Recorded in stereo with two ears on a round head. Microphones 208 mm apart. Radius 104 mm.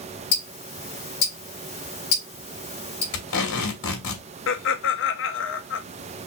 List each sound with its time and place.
0.3 s ticking: 45° left (ahead or behind), 3 m
3.1 s tape being pulled: 60° left (ahead or behind), 3 m
4.5 s laughter: 55° left (ahead or behind), 1.0 m